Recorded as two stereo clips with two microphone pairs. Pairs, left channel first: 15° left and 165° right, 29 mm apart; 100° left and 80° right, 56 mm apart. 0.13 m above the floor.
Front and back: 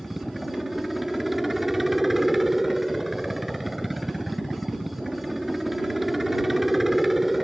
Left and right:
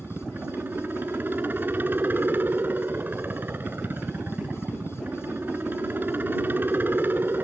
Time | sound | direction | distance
0.0 | a helicopter | 85° right | ?